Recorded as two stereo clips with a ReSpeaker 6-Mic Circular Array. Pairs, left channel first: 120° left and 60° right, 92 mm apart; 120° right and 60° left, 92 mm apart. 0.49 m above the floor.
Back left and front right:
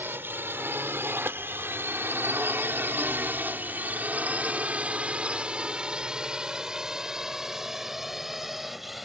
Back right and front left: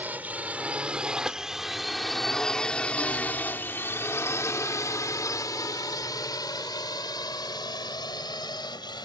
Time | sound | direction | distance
0.0 | a drone | straight ahead | ?